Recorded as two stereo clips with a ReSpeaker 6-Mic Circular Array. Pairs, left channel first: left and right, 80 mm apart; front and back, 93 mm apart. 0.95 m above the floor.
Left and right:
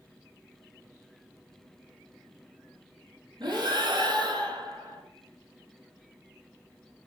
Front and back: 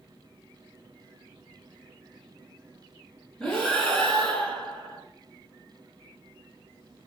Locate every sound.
3.4 s breathing: 80° right, 2 m